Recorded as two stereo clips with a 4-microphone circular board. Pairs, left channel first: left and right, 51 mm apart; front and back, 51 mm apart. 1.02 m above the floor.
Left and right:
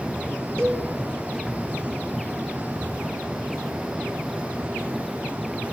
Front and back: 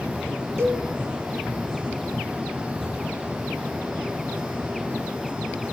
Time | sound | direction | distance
0.6 | a cowbell | 160° left | 5.5 m